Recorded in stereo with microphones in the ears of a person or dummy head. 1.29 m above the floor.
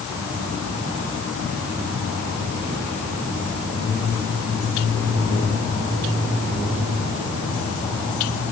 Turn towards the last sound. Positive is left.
No sound to turn to.